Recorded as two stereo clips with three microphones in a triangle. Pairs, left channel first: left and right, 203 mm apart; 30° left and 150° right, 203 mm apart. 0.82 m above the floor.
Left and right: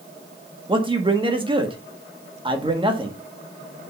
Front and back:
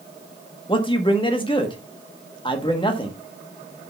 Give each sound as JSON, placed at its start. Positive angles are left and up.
{"t": 0.7, "sound": "a man speaking", "azimuth_deg": -30, "distance_m": 1.5}